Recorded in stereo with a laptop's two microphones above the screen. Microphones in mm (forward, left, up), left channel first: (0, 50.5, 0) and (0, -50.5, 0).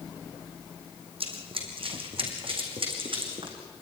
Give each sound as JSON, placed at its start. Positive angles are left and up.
{"t": 1.2, "sound": "running footsteps", "side_deg": -70, "distance_m": 3.5}